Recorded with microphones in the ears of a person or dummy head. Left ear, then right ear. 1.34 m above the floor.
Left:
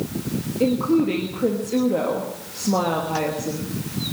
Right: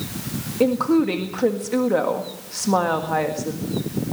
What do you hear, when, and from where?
0.6 s a woman speaking: 50° right (ahead or behind), 1.5 m